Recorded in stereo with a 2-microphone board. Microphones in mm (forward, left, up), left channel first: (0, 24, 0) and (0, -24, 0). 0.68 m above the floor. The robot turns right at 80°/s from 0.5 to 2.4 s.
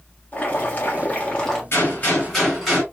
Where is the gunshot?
120° left, 3.5 m; by 2.8 s 175° left, 3.5 m.